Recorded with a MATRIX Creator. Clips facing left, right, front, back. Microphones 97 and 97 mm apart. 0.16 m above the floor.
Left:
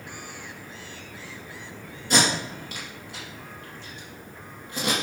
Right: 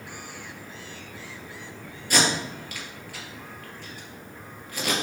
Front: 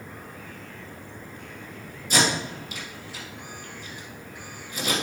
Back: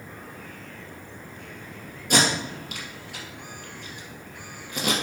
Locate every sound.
2.1 s tape being pulled: 155° left, 3 m